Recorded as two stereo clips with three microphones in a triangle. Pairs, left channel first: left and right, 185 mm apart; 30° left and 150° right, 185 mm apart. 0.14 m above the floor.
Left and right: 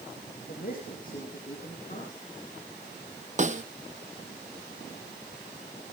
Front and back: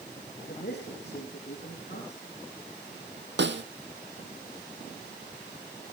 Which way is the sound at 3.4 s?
140° right.